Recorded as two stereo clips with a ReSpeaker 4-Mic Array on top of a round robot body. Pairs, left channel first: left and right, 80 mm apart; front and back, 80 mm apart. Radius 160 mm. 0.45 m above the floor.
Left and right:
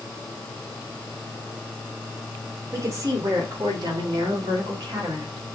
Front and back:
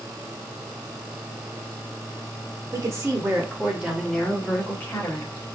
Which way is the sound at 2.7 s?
140° right.